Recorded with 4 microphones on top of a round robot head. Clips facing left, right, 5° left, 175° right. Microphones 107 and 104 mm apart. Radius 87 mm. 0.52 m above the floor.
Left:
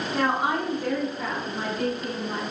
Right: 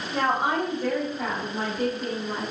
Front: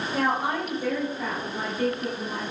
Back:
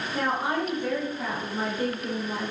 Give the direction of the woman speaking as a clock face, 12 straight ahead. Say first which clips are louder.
Right 1 dB, front 1 dB; 1 o'clock.